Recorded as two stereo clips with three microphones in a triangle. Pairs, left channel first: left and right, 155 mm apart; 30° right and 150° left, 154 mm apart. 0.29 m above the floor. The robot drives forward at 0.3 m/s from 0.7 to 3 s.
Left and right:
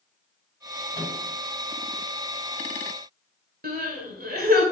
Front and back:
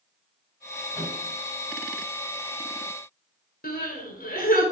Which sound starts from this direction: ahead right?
Crying, at 3.6 s.